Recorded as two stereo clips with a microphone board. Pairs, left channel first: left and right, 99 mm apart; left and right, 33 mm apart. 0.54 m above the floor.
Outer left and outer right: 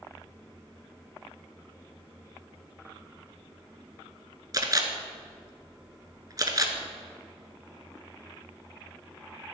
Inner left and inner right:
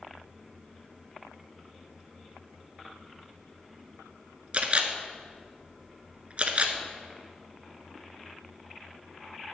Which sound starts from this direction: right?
A camera shutter, at 4.5 s.